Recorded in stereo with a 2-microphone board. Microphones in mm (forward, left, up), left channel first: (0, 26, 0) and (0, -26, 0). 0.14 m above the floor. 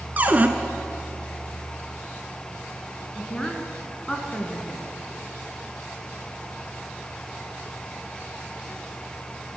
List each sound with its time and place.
0.2 s a cupboard door: 35° right (ahead or behind), 0.8 m
3.1 s a woman speaking: 15° left (ahead or behind), 1.4 m